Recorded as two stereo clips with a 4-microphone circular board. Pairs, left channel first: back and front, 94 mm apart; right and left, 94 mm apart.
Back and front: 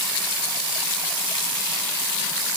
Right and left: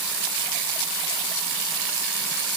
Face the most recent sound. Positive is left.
No sound to turn to.